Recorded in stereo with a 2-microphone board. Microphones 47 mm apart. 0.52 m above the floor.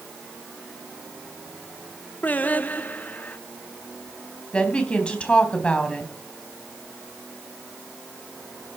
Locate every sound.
2.2 s singing: 35° left (ahead or behind), 1.0 m
4.5 s a woman speaking: 25° left (ahead or behind), 3.5 m